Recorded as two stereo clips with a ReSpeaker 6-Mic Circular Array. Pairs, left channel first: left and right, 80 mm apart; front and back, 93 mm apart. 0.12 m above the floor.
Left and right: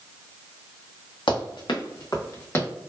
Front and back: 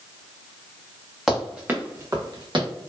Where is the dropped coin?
I don't hear a dropped coin.